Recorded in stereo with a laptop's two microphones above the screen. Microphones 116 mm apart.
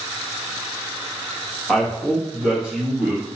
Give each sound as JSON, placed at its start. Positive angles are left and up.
{"t": 1.7, "sound": "a woman speaking", "side_deg": 0, "distance_m": 1.5}